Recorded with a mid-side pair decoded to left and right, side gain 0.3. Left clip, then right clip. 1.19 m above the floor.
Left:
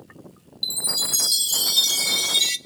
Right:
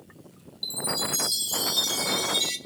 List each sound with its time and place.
0.6 s a chime: 60° left, 0.6 m